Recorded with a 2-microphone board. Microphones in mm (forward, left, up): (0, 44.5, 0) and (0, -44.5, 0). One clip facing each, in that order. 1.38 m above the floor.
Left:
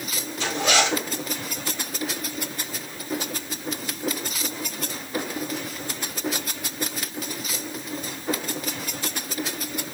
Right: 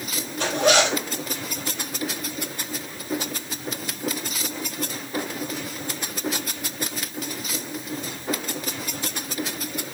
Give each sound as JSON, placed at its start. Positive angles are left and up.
{"t": 0.4, "sound": "a zipper", "side_deg": -60, "distance_m": 4.0}